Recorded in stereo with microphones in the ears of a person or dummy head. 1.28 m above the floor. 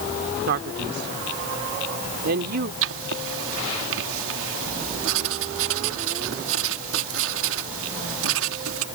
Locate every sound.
0.5 s a man speaking: 60° right (ahead or behind)
2.8 s writing: 75° right (ahead or behind)